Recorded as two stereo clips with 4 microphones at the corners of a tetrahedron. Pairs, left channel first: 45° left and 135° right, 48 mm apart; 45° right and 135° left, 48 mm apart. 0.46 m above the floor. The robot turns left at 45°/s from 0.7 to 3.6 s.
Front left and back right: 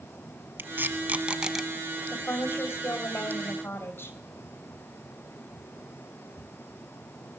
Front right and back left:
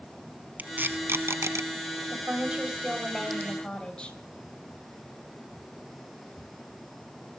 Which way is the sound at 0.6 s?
175° right.